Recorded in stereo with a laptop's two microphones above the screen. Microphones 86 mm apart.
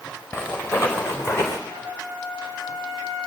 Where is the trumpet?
35° left (ahead or behind), 6 m.